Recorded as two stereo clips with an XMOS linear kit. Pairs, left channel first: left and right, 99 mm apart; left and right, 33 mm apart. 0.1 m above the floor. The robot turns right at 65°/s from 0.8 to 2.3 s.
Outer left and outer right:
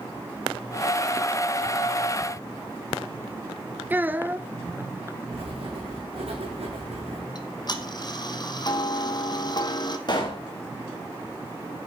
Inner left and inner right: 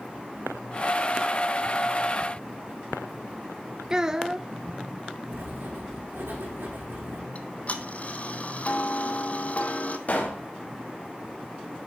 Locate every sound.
3.9 s a child speaking: 20° right (ahead or behind), 0.7 m
5.3 s writing: 75° right (ahead or behind), 4 m
7.3 s ticking: 45° left (ahead or behind), 1.2 m
10.1 s a pop: 45° left (ahead or behind), 3.5 m